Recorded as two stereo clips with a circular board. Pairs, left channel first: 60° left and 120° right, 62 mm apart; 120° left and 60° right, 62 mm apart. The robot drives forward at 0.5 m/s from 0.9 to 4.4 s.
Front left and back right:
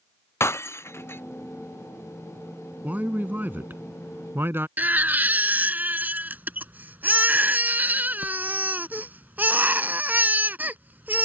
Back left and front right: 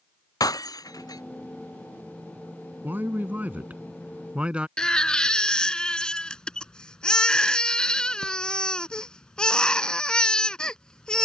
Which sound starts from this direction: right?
A man speaking, at 2.8 s.